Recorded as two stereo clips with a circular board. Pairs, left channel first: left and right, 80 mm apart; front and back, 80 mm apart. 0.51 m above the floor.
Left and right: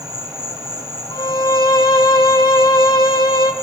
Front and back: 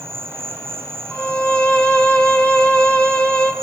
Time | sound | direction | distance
0.0 | an insect | 125° right | 1.7 m
1.1 | a violin | 70° left | 1.8 m